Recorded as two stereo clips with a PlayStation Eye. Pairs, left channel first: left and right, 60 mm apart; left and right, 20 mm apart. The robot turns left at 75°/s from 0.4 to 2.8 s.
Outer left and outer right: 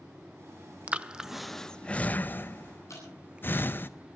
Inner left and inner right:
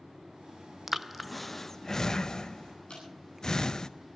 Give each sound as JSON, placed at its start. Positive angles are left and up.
{"t": 0.9, "sound": "breathing", "side_deg": -20, "distance_m": 0.6}
{"t": 2.9, "sound": "dripping", "side_deg": 55, "distance_m": 8.5}